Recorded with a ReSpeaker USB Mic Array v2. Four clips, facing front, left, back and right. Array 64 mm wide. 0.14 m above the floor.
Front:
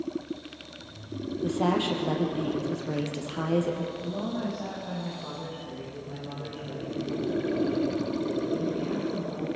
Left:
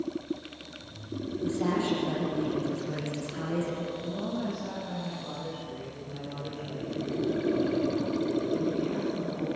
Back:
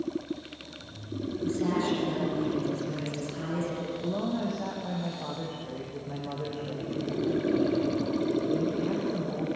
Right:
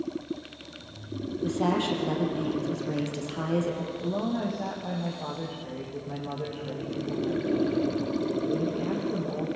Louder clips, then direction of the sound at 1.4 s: Right 2 dB, front 2 dB; 25° right.